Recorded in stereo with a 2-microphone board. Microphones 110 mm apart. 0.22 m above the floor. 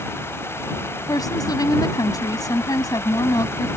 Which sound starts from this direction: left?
A woman speaking, at 1.1 s.